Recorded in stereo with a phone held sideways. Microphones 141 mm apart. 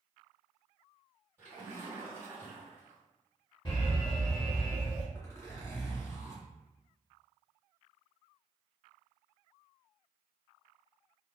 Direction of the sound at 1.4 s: 20° right (ahead or behind).